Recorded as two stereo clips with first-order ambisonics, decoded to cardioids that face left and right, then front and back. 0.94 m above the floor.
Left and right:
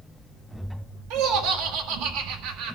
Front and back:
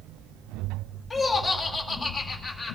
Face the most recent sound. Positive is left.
turn(degrees=-85)